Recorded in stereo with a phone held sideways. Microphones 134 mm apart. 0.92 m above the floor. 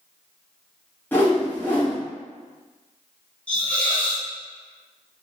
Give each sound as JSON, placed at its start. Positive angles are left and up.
{"t": 1.1, "sound": "a whoosh", "side_deg": 15, "distance_m": 0.9}
{"t": 3.5, "sound": "a hiss", "side_deg": 10, "distance_m": 0.7}